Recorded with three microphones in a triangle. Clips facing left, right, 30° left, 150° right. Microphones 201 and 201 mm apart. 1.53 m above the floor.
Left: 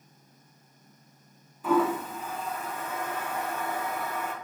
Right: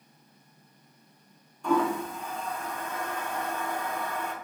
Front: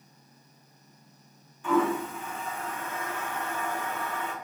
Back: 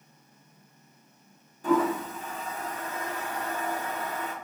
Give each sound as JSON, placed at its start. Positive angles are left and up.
{"t": 1.6, "sound": "a toilet flushing", "azimuth_deg": 175, "distance_m": 0.6}